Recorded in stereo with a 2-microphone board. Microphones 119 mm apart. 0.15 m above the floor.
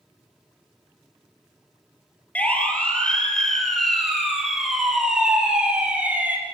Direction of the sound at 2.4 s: 10° left (ahead or behind).